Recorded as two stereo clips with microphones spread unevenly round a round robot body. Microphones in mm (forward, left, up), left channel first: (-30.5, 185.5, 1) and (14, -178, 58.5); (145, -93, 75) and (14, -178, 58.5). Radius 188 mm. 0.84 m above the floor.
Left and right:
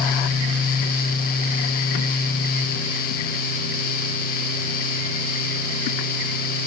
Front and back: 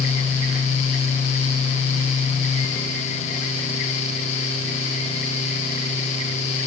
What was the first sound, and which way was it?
Only background noise.